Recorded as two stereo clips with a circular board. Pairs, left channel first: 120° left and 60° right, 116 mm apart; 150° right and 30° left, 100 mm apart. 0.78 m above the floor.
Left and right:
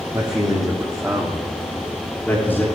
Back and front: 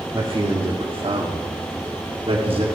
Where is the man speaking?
15° right, 1.6 m; by 2.6 s 50° left, 1.7 m.